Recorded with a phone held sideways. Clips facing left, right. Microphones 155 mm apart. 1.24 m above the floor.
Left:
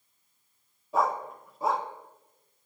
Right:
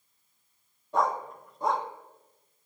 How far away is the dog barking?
About 0.7 m.